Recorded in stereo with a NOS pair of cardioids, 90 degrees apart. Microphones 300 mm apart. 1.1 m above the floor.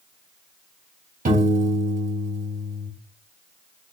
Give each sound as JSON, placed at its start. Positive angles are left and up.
{"t": 1.2, "sound": "a piano", "azimuth_deg": -25, "distance_m": 2.0}